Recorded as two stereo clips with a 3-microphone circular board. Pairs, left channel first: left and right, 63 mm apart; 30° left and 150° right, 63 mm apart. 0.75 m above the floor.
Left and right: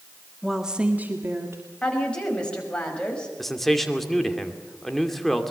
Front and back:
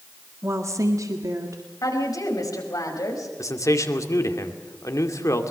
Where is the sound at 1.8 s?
15° left, 5 m.